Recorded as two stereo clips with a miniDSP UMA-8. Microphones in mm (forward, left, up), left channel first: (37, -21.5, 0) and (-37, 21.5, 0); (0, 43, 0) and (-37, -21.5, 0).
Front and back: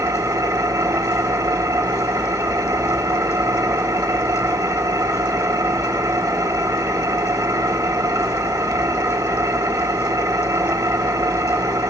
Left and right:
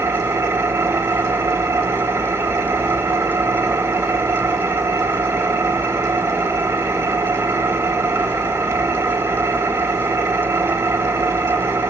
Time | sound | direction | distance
0.0 | an engine running | 170° right | 1.8 m